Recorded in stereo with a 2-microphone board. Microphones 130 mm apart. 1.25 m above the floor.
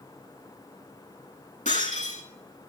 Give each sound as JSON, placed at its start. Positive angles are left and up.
{"t": 1.6, "sound": "breaking glass", "side_deg": 80, "distance_m": 7.5}